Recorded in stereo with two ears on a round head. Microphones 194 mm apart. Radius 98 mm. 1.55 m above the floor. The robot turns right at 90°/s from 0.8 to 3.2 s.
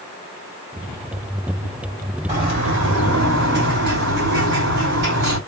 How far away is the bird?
About 2 m.